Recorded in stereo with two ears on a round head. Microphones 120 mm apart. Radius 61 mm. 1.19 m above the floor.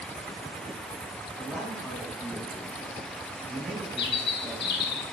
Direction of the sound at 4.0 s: 80° left.